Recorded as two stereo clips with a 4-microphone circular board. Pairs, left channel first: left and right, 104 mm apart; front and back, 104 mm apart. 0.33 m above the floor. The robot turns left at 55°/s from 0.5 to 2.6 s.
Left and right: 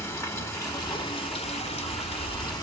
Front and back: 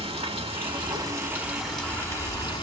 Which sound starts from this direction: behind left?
Running water, at 0.0 s.